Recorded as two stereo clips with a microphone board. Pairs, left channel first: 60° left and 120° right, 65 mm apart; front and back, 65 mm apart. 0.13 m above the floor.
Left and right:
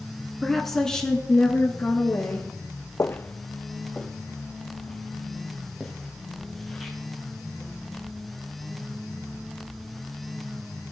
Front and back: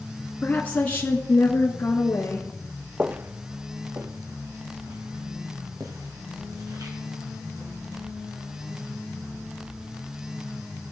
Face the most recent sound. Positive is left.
turn(degrees=150)